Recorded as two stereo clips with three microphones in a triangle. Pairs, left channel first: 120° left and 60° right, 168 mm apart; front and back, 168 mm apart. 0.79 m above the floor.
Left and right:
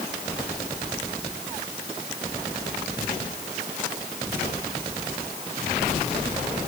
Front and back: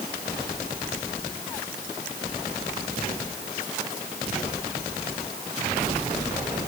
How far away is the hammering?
No hammering in this recording.